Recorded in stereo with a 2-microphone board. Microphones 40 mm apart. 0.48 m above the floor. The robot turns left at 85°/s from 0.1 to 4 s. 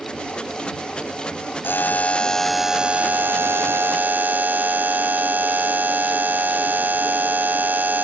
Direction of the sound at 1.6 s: 75° left.